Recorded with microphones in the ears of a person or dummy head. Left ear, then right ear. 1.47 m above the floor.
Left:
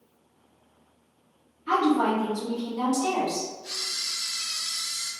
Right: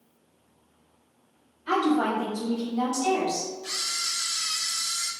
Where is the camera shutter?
45° right (ahead or behind), 0.8 m.